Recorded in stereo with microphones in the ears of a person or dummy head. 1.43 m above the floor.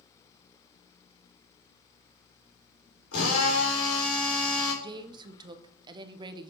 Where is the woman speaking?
20° right (ahead or behind), 0.8 m.